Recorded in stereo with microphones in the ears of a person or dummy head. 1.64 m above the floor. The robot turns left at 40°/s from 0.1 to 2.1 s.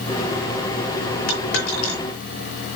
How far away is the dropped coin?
About 3.5 m.